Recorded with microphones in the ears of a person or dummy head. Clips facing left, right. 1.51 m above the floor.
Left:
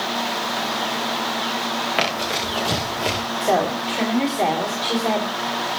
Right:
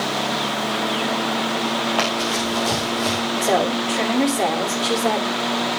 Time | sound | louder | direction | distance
2.0 | running footsteps | right 2 dB | 25° left (ahead or behind) | 7 m
3.4 | a woman speaking | even | 5° right (ahead or behind) | 3.5 m